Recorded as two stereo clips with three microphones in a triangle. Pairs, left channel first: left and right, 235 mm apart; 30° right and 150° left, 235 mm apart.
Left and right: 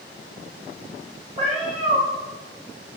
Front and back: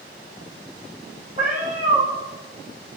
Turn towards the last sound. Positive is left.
turn(degrees=-155)